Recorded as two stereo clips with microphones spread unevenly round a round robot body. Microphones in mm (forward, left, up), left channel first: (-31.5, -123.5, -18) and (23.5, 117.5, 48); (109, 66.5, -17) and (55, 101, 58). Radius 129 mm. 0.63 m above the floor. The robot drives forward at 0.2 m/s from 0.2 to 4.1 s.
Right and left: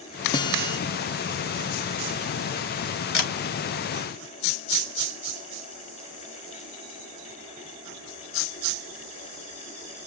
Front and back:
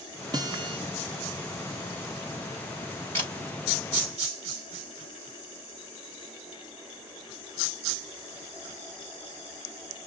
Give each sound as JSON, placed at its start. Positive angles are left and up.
{"t": 0.3, "sound": "a guitar", "azimuth_deg": -110, "distance_m": 0.8}
{"t": 3.1, "sound": "a camera shutter", "azimuth_deg": -145, "distance_m": 4.0}